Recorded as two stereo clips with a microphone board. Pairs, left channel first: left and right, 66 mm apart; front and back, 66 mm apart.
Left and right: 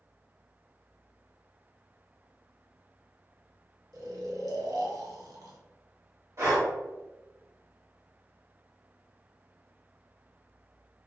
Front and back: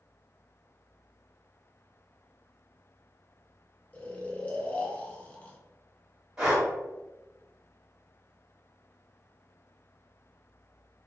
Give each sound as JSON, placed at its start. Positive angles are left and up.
{"t": 3.9, "sound": "snoring", "azimuth_deg": -70, "distance_m": 0.6}
{"t": 6.4, "sound": "breathing", "azimuth_deg": -100, "distance_m": 1.5}